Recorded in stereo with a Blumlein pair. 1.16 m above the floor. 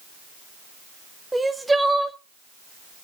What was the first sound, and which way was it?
Crying, 5° right.